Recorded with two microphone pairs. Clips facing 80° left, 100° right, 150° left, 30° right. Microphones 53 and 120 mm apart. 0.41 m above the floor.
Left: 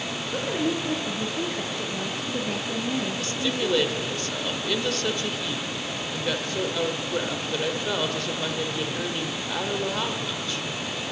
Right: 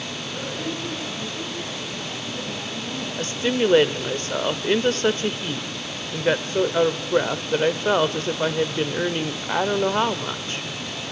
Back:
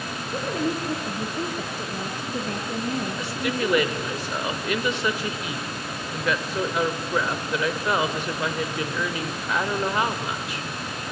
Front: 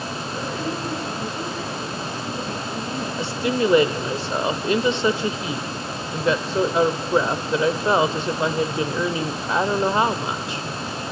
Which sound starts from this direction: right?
A woman speaking, at 3.2 s.